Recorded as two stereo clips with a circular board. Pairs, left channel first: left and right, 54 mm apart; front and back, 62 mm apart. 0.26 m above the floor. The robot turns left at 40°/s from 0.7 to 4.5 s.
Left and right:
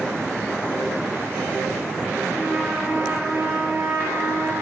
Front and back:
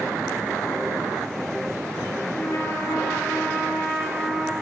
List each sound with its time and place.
2.3 s a trumpet: 5° left, 3.5 m; by 4.5 s 85° right, 3.5 m